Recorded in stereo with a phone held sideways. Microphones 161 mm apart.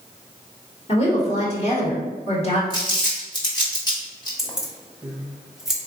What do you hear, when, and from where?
0.9 s a woman speaking: 40° left (ahead or behind), 1.7 m
2.7 s crumpling: 25° left (ahead or behind), 1.6 m
4.4 s keys jangling: centre (ahead or behind), 1.0 m